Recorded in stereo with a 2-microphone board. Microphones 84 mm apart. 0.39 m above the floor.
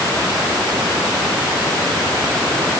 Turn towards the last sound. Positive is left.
No sound to turn to.